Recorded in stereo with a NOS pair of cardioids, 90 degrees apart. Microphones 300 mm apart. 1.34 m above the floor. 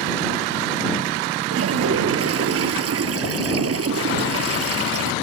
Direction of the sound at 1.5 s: 50° right.